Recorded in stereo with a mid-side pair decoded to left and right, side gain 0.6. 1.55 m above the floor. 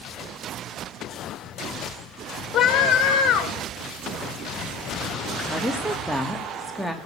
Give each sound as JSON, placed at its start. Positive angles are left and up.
{"t": 2.5, "sound": "a scream", "azimuth_deg": 45, "distance_m": 7.0}
{"t": 5.5, "sound": "a woman speaking", "azimuth_deg": -5, "distance_m": 4.0}